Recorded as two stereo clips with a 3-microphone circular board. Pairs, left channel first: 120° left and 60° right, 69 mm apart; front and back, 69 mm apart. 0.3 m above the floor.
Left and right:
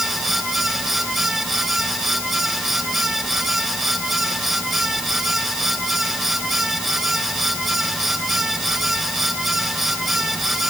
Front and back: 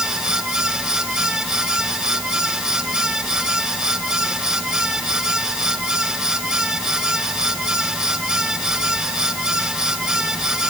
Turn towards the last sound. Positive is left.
No sound to turn to.